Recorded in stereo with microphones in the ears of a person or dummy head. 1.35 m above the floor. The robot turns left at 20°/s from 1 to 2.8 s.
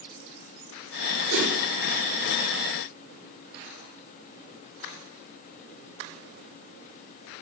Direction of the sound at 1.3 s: 60° right (ahead or behind).